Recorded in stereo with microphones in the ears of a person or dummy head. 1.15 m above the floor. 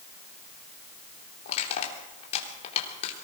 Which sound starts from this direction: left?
Crushing, at 1.4 s.